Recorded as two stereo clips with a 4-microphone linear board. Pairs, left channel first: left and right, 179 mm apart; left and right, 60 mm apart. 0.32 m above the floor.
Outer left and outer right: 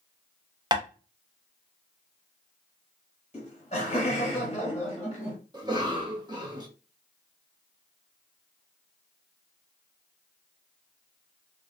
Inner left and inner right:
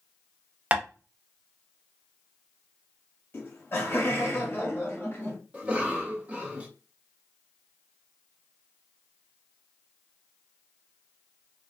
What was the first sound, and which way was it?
Tapping, 25° right (ahead or behind).